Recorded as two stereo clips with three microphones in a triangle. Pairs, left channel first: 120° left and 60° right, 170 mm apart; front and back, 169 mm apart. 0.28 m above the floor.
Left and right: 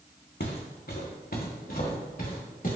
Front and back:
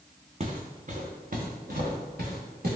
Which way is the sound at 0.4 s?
135° left.